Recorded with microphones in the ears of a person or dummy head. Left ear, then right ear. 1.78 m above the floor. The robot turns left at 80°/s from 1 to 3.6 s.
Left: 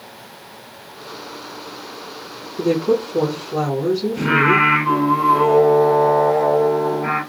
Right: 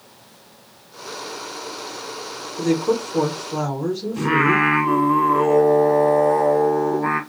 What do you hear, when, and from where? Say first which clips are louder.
2.6 s a woman speaking: left 3 dB; 80° right, 3 m; by 4.7 s 165° right, 3 m
4.2 s singing: left 2 dB; 20° right (ahead or behind), 1.5 m